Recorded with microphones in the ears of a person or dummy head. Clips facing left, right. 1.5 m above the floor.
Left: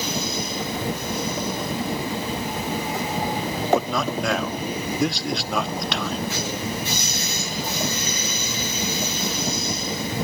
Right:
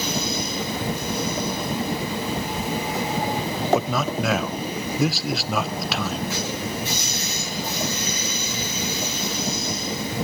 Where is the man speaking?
5° right (ahead or behind), 0.5 m.